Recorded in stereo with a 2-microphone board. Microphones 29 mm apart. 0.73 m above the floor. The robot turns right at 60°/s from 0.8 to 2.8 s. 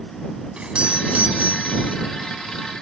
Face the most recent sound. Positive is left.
turn(degrees=-15)